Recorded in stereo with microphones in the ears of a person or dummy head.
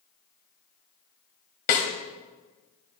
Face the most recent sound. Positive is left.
turn(degrees=50)  # may be behind; listen again after turning